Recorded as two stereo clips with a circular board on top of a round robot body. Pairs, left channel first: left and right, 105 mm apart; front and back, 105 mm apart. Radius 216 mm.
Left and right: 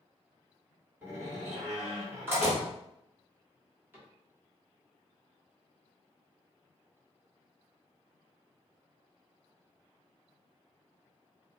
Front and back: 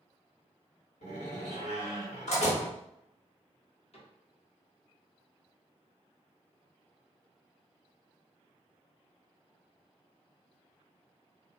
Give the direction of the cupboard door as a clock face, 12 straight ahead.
1 o'clock.